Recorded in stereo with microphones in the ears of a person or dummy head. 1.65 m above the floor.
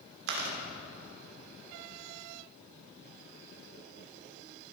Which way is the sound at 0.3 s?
70° right (ahead or behind).